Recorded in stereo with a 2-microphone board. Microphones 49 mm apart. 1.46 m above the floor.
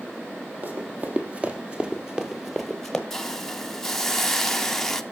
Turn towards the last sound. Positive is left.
turn(degrees=10)  # may be behind; listen again after turning